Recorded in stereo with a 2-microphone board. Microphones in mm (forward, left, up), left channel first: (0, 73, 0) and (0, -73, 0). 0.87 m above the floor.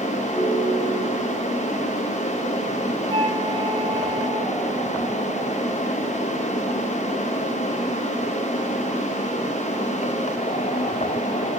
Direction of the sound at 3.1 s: 35° right (ahead or behind).